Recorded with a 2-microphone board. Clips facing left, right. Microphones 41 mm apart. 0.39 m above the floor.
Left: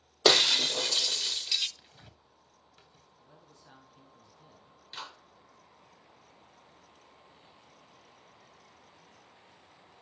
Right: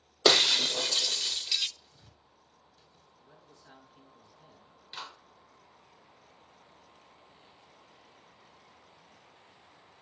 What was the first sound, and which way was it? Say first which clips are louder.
Breaking glass: even; centre (ahead or behind).